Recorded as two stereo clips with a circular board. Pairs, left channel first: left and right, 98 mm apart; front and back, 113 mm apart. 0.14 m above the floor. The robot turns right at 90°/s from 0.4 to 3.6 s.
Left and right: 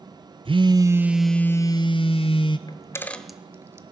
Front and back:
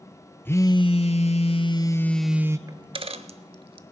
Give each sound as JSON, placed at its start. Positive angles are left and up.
{"t": 0.5, "sound": "a phone buzzing", "azimuth_deg": -70, "distance_m": 0.6}
{"t": 2.7, "sound": "a dropped coin", "azimuth_deg": 125, "distance_m": 0.6}